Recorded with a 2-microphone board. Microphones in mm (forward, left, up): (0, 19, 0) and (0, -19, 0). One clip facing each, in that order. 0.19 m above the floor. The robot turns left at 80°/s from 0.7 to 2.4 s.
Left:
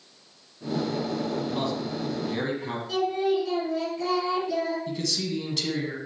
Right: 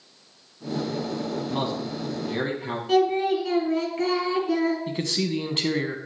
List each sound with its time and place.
1.5 s a man speaking: 105° right, 1.5 m; by 2.8 s 175° right, 1.5 m
2.9 s singing: 55° right (ahead or behind), 3.5 m
4.9 s a man speaking: 35° right (ahead or behind), 1.1 m